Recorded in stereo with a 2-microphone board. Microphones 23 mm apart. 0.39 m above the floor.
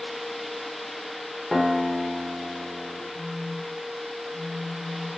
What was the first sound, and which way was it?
A guitar, 5° right (ahead or behind).